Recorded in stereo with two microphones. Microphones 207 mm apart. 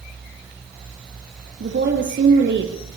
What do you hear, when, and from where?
1.6 s a woman speaking: 60° right (ahead or behind), 4.5 m